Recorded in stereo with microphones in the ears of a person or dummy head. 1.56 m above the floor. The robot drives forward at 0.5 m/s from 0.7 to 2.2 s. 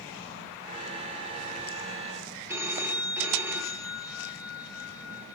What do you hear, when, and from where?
2.5 s a phone ringing: 10° right (ahead or behind), 0.9 m